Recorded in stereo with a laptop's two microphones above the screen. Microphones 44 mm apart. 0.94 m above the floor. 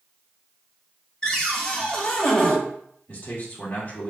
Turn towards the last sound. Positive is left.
turn(degrees=35)  # may be behind; listen again after turning